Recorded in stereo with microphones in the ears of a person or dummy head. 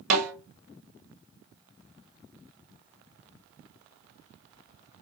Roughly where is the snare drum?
Centre.